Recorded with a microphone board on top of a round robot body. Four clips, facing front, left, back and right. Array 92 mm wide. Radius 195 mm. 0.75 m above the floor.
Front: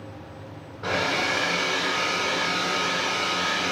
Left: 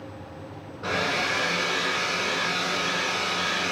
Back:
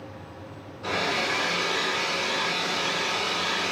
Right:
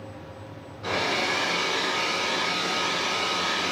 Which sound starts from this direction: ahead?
A hair dryer, at 0.8 s.